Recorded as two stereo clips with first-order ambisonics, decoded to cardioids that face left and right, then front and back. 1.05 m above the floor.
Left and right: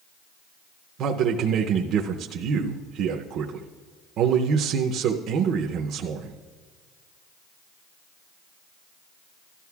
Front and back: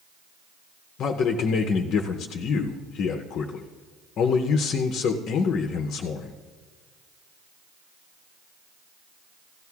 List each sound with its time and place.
1.0 s a man speaking: 45° right, 0.6 m